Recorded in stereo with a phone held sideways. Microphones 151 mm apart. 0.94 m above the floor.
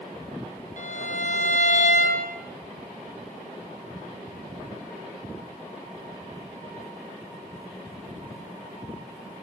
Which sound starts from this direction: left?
A violin, at 0.8 s.